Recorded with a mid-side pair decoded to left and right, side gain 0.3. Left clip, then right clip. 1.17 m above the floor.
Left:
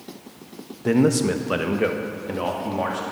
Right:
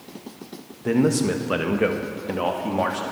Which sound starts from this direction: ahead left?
A man speaking, at 0.8 s.